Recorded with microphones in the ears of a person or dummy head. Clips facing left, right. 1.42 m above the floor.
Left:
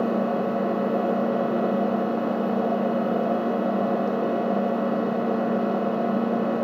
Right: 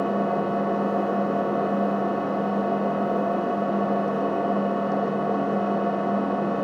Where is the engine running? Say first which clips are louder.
Left 1 dB; 30° left (ahead or behind), 1.5 m.